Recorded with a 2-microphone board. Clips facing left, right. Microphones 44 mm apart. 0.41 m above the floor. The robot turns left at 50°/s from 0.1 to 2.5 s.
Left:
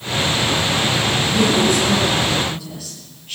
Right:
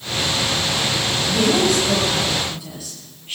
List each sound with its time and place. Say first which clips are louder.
1.3 s a woman speaking: even; 110° right, 9 m; by 3.4 s 170° right, 9 m